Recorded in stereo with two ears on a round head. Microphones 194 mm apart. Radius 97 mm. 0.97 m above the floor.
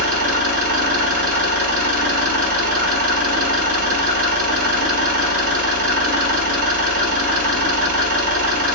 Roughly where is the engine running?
Right.